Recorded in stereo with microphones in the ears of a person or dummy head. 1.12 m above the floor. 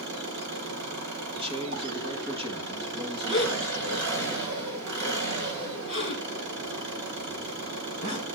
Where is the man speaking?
25° right (ahead or behind), 1.8 m.